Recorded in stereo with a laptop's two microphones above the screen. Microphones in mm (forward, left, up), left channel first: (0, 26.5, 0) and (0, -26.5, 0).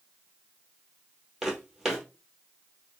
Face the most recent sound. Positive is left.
turn(degrees=-10)  # may be behind; listen again after turning